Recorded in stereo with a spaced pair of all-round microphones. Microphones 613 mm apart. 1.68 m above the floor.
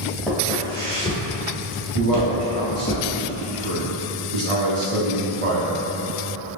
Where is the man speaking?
65° right (ahead or behind), 1.0 m.